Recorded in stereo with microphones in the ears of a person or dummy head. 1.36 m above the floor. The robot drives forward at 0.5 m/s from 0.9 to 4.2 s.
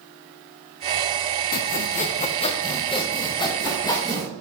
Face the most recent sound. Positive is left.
turn(degrees=15)  # may be behind; listen again after turning